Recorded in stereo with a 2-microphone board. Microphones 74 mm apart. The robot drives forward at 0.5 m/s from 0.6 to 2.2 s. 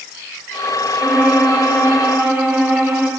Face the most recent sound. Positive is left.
turn(degrees=-20)  # may be behind; listen again after turning